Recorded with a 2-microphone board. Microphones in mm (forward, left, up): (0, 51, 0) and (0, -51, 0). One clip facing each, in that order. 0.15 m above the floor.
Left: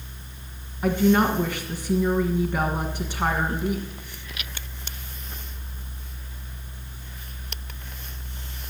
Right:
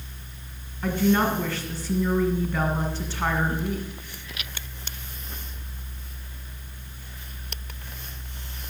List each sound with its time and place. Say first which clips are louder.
0.8 s a woman speaking: left 2 dB; 15° left (ahead or behind), 1.5 m